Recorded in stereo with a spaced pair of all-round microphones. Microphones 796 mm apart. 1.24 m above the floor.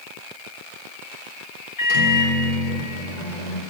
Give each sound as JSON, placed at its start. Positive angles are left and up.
{"t": 1.8, "sound": "a microwave", "side_deg": 60, "distance_m": 1.2}